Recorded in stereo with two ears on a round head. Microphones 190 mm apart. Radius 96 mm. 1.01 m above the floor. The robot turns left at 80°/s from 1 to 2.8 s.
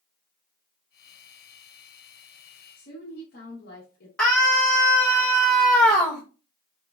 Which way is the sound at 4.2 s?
5° left (ahead or behind).